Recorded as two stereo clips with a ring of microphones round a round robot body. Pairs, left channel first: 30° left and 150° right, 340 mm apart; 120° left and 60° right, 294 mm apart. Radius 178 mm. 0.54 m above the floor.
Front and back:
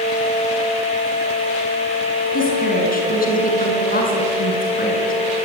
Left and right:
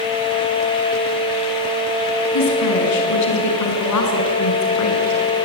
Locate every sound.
2.3 s a woman speaking: 95° left, 6 m